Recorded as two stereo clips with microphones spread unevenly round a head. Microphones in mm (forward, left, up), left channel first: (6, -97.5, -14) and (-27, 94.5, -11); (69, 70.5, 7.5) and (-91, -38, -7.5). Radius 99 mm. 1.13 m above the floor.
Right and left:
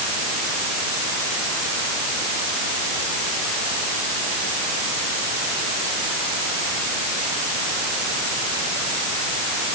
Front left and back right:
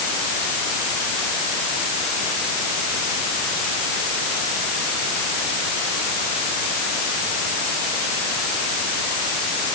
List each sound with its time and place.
Only background noise.